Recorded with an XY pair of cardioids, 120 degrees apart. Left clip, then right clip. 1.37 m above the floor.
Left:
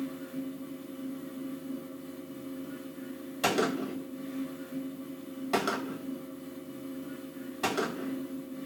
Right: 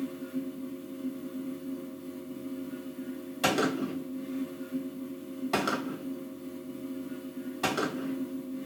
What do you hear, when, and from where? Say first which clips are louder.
0.0 s a fan: right 2 dB; 40° left, 1.0 m
3.4 s a gunshot: right 1 dB; 5° left, 1.2 m